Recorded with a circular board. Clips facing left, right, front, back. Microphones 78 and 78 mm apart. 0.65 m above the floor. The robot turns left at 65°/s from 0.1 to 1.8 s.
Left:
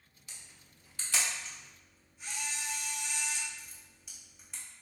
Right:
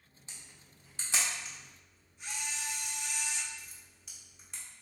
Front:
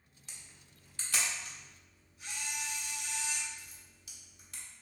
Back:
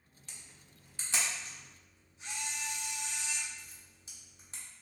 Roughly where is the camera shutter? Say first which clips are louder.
Right 1 dB, even; right.